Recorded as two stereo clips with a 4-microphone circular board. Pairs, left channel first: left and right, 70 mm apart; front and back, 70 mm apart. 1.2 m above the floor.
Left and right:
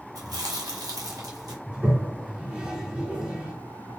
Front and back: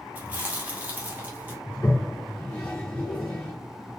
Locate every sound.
0.1 s chewing: 115° right, 1.1 m
1.7 s a toilet flushing: 40° right, 1.0 m